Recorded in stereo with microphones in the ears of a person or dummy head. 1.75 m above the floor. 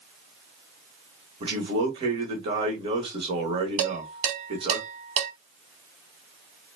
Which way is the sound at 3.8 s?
40° right (ahead or behind).